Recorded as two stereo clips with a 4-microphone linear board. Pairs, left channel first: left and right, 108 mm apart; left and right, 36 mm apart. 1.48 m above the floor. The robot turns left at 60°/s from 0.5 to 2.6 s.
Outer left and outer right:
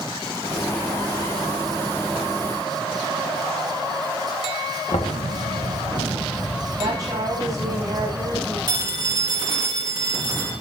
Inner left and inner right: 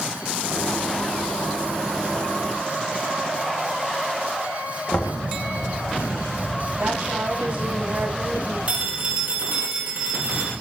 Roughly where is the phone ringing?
Right.